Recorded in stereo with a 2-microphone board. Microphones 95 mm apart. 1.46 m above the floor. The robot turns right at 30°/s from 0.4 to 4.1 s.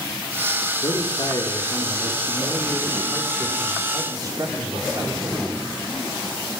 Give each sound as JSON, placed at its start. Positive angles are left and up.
{"t": 0.8, "sound": "a man speaking", "azimuth_deg": 120, "distance_m": 5.0}